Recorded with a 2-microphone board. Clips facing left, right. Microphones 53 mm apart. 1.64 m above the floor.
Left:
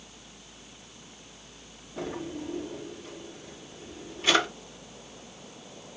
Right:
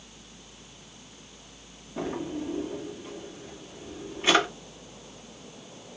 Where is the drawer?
25° right (ahead or behind), 1.4 m.